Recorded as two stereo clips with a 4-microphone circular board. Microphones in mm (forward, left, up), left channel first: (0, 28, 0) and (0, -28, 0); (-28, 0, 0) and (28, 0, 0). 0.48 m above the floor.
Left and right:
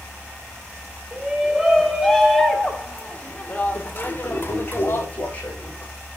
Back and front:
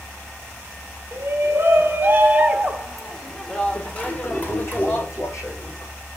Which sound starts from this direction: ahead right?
A shout, at 1.1 s.